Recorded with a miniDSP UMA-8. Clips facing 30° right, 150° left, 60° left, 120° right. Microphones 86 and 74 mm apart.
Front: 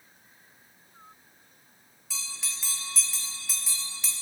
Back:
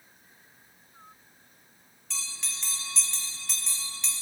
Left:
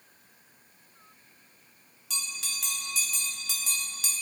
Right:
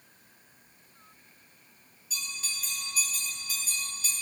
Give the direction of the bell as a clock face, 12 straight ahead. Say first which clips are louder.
Even, left 1 dB; 10 o'clock.